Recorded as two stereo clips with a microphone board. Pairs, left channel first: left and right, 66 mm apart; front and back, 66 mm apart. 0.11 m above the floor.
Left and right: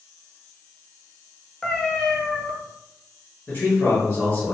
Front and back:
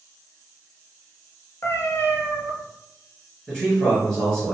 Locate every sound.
1.6 s a cat meowing: 10° left, 0.6 m
3.5 s a man speaking: 60° left, 1.7 m